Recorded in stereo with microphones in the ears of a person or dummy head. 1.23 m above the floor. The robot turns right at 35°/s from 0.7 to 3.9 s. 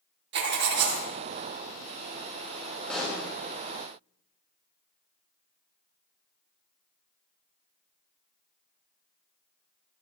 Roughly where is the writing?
Right.